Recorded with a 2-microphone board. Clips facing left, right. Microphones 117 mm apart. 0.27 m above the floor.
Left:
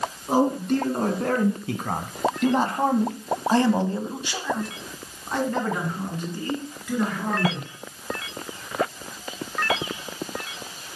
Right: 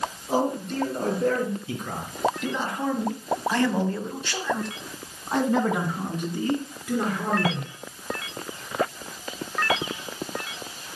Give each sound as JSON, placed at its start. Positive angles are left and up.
{"t": 0.3, "sound": "a man speaking", "side_deg": 60, "distance_m": 3.5}